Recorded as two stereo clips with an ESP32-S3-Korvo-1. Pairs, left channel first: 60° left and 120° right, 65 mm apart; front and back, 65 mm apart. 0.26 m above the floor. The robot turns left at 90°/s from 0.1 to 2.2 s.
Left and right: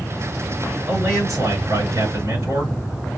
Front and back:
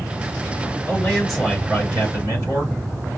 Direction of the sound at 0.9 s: 50° right.